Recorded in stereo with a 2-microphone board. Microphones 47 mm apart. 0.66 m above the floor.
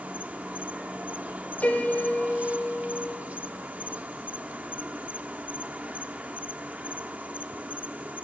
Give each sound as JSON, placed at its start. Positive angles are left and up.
{"t": 0.0, "sound": "an insect", "side_deg": -30, "distance_m": 0.9}
{"t": 1.6, "sound": "a piano", "side_deg": 35, "distance_m": 3.0}